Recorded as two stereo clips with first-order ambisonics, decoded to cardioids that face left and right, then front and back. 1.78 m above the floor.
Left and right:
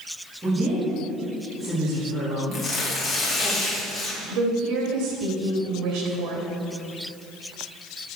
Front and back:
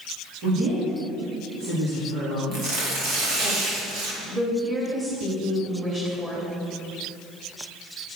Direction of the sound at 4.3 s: 115° right.